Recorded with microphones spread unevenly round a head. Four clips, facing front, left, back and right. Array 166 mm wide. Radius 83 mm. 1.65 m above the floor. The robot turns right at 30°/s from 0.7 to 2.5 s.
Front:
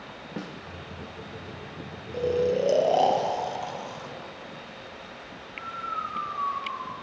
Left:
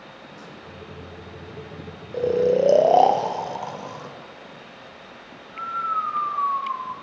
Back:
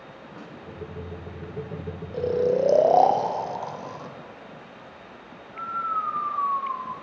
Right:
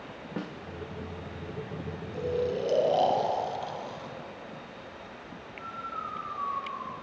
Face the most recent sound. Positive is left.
turn(degrees=100)